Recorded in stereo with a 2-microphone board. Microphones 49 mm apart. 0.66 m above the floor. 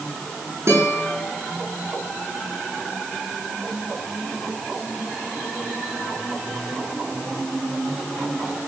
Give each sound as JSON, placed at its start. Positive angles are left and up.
{"t": 0.7, "sound": "a guitar", "side_deg": -70, "distance_m": 5.0}